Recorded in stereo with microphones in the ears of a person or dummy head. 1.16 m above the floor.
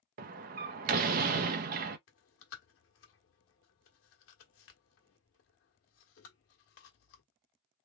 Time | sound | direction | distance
0.2 | a door slam | 45° right (ahead or behind) | 0.6 m
2.1 | chewing | 65° left (ahead or behind) | 1.3 m